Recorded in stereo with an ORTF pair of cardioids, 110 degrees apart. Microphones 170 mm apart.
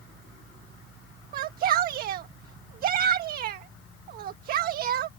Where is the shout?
60° right.